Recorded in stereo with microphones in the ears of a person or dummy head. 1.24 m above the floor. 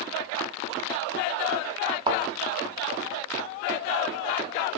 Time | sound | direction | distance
2.1 | a thud | 25° right (ahead or behind) | 1.7 m